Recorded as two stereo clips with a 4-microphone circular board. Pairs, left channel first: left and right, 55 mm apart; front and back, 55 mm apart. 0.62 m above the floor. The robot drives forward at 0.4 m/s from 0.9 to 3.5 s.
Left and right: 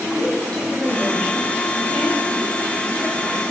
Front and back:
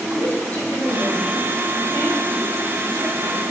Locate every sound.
0.1 s a woman speaking: 160° left, 2.5 m; by 3.4 s 165° left, 3.5 m